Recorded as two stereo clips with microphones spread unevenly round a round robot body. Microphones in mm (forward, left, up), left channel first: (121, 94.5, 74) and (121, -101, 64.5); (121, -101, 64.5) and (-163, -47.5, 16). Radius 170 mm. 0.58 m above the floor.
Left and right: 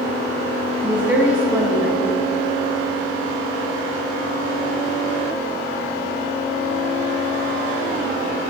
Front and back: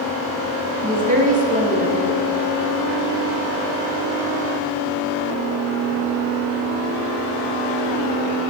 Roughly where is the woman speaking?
Behind.